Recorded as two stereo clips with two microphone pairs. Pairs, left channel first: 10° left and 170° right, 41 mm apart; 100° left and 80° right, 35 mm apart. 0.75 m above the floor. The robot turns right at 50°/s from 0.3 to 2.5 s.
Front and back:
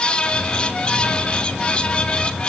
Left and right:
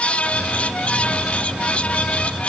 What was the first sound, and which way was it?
Only background noise.